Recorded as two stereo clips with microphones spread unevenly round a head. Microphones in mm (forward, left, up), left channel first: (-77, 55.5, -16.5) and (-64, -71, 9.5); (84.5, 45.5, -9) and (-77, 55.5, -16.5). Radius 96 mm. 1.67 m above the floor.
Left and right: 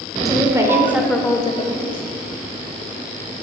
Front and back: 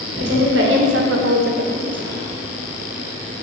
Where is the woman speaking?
145° right, 1.4 m; by 2.0 s 110° left, 0.7 m.